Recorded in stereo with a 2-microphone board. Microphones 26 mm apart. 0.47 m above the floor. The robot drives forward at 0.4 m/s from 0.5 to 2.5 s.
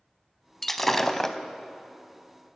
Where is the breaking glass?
10° left (ahead or behind), 1.0 m; by 1.4 s 15° left (ahead or behind), 0.7 m.